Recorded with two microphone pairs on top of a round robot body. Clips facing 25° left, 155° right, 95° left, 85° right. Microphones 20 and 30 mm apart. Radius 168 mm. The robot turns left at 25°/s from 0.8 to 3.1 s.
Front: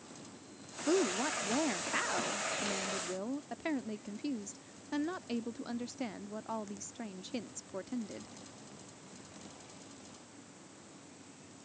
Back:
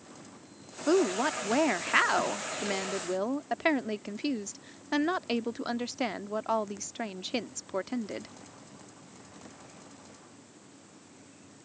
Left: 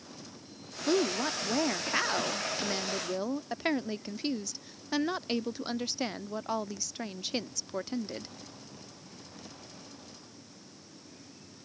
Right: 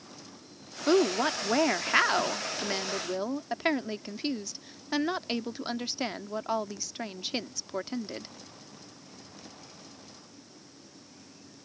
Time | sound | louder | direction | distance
0.9 | a woman speaking | back 6 dB, right 4 dB | 100° right | ?